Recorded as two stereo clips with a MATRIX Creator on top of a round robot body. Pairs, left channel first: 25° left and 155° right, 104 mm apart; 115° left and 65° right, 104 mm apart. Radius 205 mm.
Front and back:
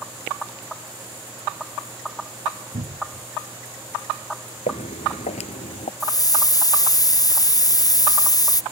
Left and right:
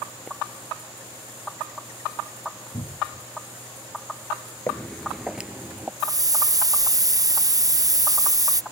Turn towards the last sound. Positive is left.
turn(degrees=-20)